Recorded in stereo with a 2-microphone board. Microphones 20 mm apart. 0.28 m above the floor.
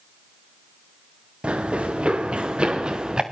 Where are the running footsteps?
80° right, 2.5 m; by 3.2 s 45° right (ahead or behind), 2 m.